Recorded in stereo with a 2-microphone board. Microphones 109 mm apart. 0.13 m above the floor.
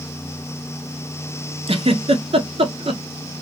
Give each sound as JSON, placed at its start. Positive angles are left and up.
{"t": 1.7, "sound": "a giggle", "side_deg": -55, "distance_m": 0.6}